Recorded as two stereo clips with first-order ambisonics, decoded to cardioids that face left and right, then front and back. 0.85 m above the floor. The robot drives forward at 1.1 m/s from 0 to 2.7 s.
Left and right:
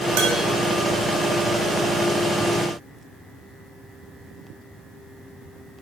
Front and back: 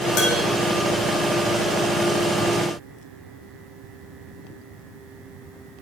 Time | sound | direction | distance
0.2 | dishes clattering | 55° right | 3 m